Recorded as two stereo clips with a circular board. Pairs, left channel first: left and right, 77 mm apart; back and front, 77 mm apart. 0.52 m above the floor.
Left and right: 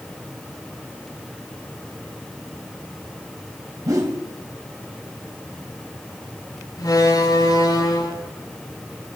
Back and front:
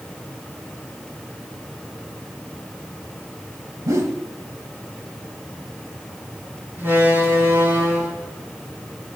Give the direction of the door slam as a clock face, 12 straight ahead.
10 o'clock.